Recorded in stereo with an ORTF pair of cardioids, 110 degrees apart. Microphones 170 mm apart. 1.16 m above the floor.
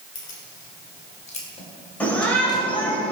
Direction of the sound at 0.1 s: 55° left.